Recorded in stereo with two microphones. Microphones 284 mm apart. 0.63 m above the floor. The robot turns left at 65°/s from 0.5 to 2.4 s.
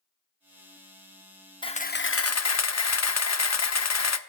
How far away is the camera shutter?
About 0.6 m.